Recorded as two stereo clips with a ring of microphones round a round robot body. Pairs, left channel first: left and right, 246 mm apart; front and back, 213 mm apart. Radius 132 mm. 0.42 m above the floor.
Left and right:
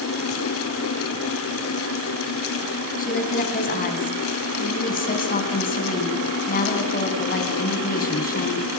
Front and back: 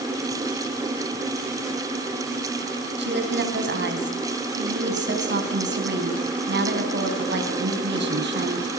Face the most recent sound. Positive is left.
turn(degrees=145)